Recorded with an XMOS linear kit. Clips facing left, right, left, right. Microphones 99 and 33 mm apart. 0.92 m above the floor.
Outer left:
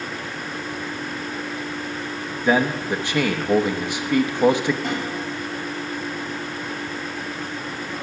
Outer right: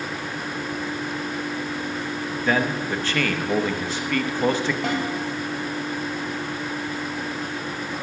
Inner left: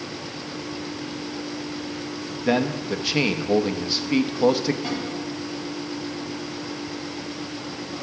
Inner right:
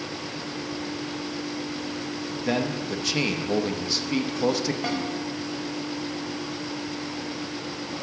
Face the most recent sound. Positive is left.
turn(degrees=-75)  # may be behind; listen again after turning